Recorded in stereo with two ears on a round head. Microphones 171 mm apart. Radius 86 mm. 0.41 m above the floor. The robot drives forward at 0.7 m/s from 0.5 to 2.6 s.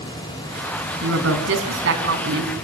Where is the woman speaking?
75° right (ahead or behind), 3.5 m; by 2.5 s 65° right (ahead or behind), 3.5 m.